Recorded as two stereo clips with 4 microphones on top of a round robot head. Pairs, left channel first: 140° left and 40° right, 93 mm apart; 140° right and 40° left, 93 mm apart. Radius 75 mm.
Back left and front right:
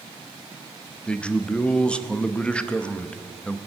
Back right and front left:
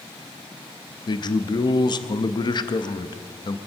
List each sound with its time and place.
1.1 s a man speaking: 145° right, 0.8 m